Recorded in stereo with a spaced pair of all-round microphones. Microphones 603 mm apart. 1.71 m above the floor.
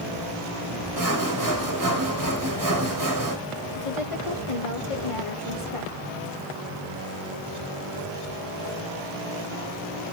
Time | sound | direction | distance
1.0 | sawing | 30° right (ahead or behind) | 1.3 m
3.8 | a woman speaking | 55° left (ahead or behind) | 2 m